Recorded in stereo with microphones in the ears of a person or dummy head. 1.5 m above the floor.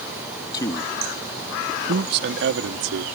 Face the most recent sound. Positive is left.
turn(degrees=-80)